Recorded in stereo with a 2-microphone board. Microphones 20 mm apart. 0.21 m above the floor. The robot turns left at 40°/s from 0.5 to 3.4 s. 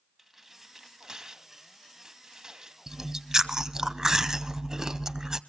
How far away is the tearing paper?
About 1.3 m.